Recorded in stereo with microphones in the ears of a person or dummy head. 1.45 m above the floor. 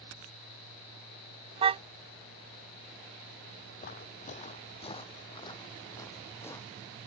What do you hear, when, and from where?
1.6 s a car horn: 30° right (ahead or behind)
3.8 s footsteps: 40° left (ahead or behind); by 7.0 s 10° left (ahead or behind)